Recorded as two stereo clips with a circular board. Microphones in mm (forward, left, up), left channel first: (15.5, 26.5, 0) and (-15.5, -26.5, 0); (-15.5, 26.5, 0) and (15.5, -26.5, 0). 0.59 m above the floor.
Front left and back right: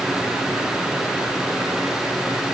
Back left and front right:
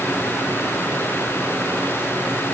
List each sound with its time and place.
Only background noise.